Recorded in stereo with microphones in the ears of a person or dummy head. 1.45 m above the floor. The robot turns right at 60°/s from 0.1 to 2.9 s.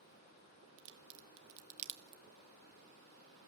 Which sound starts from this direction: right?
A crack, at 0.8 s.